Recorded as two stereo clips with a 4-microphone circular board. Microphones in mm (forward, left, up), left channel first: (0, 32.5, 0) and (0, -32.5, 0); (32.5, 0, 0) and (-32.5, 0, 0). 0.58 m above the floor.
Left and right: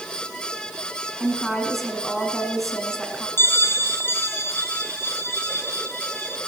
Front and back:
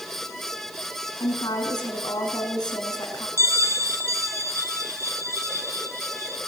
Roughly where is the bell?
Behind left.